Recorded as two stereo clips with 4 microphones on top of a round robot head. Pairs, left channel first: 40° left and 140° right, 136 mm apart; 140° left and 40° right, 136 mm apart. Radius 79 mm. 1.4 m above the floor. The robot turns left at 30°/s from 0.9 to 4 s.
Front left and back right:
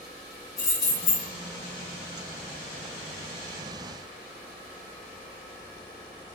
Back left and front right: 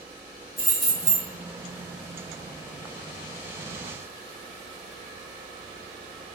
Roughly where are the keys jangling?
Ahead left.